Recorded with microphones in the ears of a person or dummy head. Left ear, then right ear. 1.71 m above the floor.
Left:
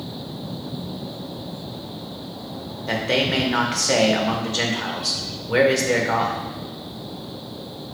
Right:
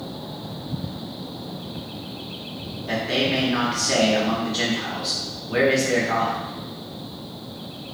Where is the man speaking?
20° left (ahead or behind), 0.7 m.